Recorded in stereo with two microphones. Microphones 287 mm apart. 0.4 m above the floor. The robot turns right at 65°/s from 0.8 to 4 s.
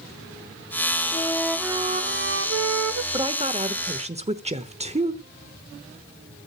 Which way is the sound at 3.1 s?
15° right (ahead or behind).